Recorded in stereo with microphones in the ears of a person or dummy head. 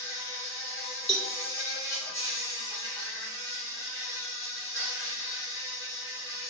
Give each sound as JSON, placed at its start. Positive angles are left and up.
{"t": 0.0, "sound": "an insect", "side_deg": 15, "distance_m": 3.5}
{"t": 1.1, "sound": "a cowbell", "side_deg": 5, "distance_m": 2.0}